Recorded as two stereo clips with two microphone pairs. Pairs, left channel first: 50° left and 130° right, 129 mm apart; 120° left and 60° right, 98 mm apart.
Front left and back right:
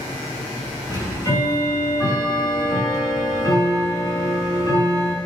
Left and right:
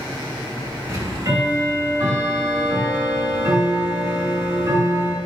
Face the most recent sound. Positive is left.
turn(degrees=-10)